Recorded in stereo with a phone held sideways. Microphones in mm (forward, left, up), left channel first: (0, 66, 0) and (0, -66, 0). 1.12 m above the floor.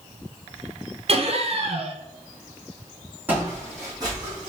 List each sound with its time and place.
1.1 s laughter: 50° right (ahead or behind), 0.8 m
3.3 s footsteps: 15° right (ahead or behind), 2.5 m; by 4.5 s 35° right (ahead or behind), 2 m